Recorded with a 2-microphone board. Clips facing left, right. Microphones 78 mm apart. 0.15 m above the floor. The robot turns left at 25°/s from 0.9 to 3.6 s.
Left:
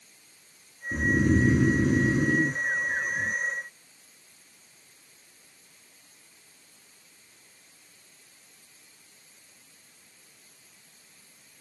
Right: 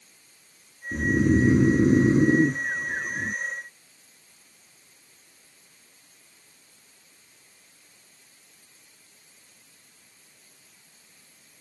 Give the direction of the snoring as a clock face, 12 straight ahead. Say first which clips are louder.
Right 2 dB; 12 o'clock.